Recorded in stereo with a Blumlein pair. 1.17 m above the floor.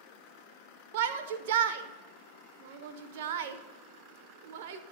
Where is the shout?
50° right, 0.7 m.